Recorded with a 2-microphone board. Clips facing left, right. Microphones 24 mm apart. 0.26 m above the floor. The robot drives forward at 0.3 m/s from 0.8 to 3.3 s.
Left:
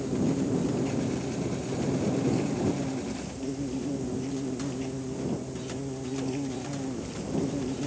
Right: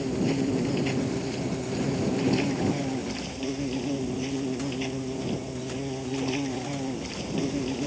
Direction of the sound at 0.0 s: 80° right.